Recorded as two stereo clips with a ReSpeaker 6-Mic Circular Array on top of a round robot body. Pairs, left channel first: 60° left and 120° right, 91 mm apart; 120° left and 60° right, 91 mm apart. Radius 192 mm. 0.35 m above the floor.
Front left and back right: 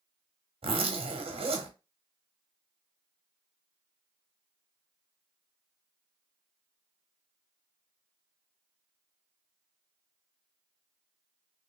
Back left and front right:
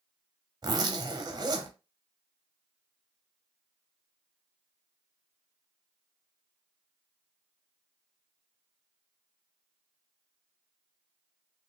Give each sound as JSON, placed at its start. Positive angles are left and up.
{"t": 0.6, "sound": "a zipper", "azimuth_deg": -105, "distance_m": 0.9}